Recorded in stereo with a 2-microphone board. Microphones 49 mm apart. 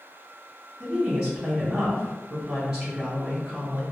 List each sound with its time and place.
0.8 s a woman speaking: 15° right (ahead or behind), 1.9 m